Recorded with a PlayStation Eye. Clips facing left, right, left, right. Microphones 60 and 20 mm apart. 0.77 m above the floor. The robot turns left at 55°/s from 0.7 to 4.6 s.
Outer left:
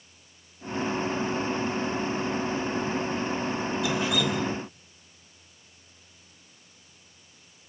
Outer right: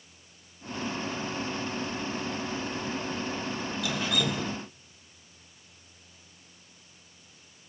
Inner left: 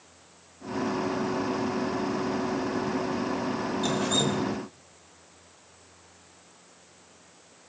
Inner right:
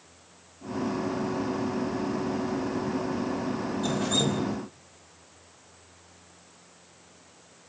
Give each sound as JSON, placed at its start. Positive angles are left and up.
{"t": 3.8, "sound": "dripping", "azimuth_deg": 25, "distance_m": 3.5}